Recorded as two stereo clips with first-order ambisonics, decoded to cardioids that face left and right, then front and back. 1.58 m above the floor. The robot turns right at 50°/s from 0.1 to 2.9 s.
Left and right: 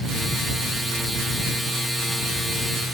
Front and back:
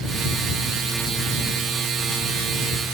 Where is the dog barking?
No dog barking in this recording.